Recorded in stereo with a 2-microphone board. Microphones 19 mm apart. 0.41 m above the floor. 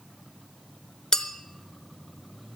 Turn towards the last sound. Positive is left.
turn(degrees=40)  # may be behind; listen again after turning